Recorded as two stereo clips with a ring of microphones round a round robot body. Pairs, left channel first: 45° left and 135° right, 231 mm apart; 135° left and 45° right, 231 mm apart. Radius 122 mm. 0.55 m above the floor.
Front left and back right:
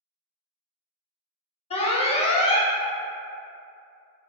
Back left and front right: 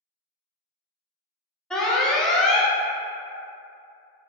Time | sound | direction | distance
1.7 | an alarm | 50° left | 0.6 m